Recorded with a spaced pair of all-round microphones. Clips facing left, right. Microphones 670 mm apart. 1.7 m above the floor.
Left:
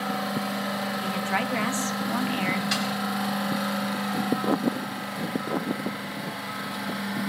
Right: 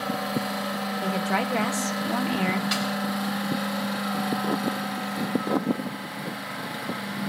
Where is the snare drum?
75° right (ahead or behind), 4 m.